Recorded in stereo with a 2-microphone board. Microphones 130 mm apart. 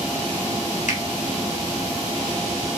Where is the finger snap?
70° left (ahead or behind), 4 m.